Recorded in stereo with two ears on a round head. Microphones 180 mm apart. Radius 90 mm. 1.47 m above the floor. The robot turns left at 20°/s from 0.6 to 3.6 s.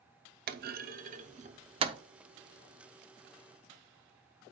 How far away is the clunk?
About 0.6 m.